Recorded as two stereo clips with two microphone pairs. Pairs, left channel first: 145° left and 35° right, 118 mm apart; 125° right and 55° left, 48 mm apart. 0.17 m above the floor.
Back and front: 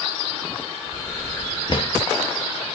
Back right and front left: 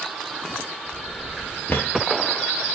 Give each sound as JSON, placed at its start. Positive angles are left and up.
{"t": 1.7, "sound": "a drawer", "azimuth_deg": -165, "distance_m": 1.5}